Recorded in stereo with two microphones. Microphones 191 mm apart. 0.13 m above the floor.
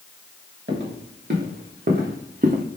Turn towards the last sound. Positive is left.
turn(degrees=-40)  # may be behind; listen again after turning